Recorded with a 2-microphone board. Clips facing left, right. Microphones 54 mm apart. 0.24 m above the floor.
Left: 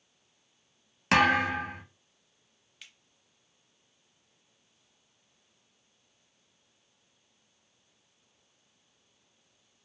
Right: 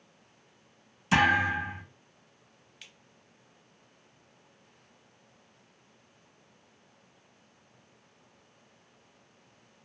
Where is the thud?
70° left (ahead or behind), 0.9 m.